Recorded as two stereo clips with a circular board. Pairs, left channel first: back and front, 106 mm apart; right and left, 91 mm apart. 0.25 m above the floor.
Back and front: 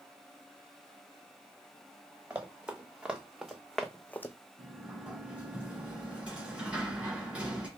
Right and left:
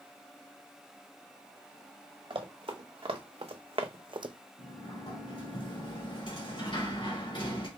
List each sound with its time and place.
2.3 s running footsteps: 75° left, 1.9 m; by 4.3 s 120° left, 0.5 m
4.6 s a sliding door: 75° right, 2.5 m